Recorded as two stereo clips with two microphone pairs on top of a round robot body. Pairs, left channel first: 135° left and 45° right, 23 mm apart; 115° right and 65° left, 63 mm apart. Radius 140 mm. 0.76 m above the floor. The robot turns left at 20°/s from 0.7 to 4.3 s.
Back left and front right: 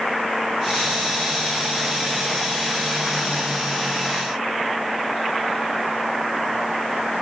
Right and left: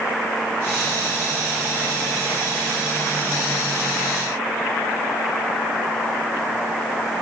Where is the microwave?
No microwave in this recording.